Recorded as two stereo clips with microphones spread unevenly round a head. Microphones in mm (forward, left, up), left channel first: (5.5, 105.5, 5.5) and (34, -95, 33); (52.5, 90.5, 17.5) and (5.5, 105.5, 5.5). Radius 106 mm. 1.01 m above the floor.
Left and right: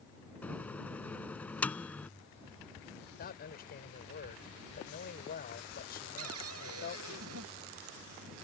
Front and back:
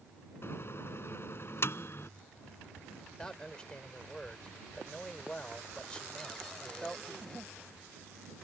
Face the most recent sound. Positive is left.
turn(degrees=-105)